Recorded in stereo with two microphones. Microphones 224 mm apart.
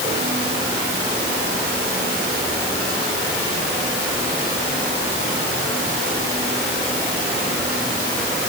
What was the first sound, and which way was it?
Only background noise.